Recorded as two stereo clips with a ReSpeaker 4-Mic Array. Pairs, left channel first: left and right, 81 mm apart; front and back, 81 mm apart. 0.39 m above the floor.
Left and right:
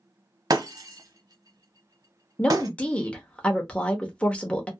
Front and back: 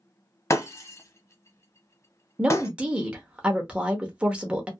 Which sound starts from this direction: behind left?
A woman speaking, at 2.4 s.